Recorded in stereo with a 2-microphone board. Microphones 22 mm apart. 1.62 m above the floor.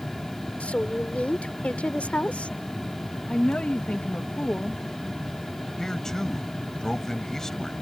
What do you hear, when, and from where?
0.6 s a woman speaking: 80° left; by 2.6 s 85° left
3.3 s a woman speaking: 85° left
5.8 s a man speaking: 20° left (ahead or behind)